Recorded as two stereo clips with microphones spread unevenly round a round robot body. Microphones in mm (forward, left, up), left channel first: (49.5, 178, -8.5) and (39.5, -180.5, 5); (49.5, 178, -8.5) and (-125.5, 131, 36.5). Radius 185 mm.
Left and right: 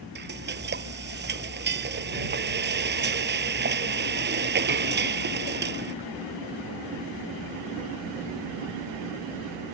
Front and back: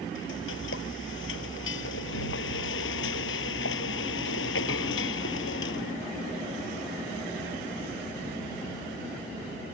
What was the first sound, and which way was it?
Frying, 30° right.